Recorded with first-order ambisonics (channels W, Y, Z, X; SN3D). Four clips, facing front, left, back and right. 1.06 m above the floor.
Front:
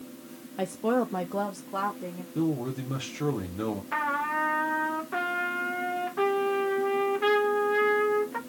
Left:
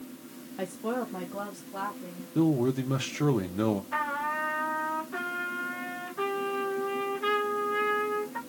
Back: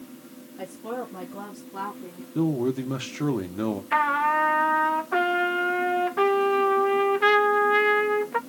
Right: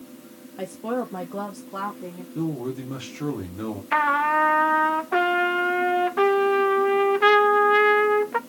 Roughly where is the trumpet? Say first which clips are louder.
Right 10 dB, back 7 dB; behind right.